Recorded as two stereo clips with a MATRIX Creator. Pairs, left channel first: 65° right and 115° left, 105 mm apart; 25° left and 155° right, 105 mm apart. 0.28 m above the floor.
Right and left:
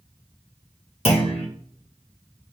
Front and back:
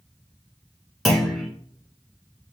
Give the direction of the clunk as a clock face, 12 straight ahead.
2 o'clock.